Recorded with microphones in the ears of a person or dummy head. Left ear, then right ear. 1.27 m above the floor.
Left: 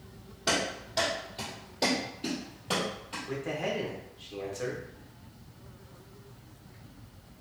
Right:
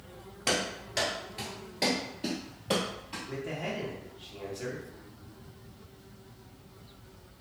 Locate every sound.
0.5 s running footsteps: 35° right (ahead or behind), 1.5 m; by 3.2 s centre (ahead or behind), 1.5 m
3.3 s a man speaking: 25° left (ahead or behind), 0.8 m